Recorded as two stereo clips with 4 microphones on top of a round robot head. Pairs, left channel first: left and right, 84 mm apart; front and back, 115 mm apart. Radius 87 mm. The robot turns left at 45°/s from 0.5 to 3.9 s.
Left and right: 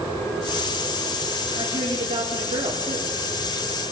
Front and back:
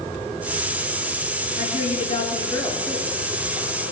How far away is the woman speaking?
About 3.5 m.